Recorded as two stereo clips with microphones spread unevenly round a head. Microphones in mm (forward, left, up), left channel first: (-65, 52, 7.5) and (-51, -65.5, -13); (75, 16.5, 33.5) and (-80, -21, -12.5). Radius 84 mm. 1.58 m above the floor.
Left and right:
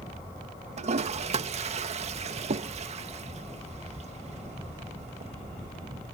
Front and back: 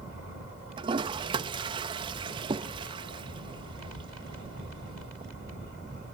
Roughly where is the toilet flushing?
Right.